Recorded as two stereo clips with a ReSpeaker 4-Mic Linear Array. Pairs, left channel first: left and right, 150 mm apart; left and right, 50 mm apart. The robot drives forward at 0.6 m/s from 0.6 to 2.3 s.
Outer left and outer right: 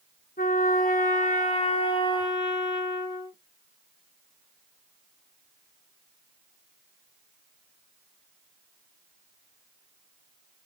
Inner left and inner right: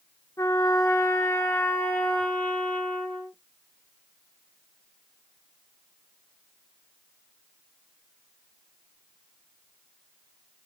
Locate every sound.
0.4 s a trumpet: 80° left, 0.7 m; by 3.4 s 30° left (ahead or behind), 1.2 m